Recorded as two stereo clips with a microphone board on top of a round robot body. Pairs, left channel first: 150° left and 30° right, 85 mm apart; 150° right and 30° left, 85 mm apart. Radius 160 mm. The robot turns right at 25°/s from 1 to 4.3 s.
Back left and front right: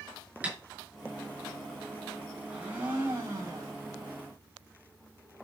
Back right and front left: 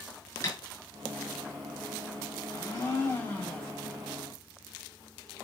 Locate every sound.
0.4 s tapping: 105° right, 5.5 m
2.5 s a blender: 110° right, 5.5 m; by 3.7 s 75° right, 5.5 m